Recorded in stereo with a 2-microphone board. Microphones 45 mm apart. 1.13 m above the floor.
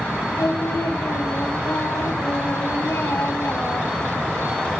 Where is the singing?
65° left (ahead or behind), 3 m.